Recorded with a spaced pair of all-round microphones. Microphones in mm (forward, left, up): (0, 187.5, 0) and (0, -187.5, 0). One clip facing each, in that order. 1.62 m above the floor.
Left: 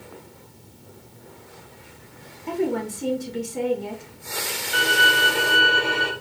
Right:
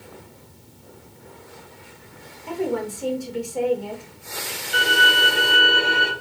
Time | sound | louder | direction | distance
2.5 | a woman speaking | left 1 dB | 30° left (ahead or behind) | 1.4 m
4.7 | a violin | even | 15° left (ahead or behind) | 2 m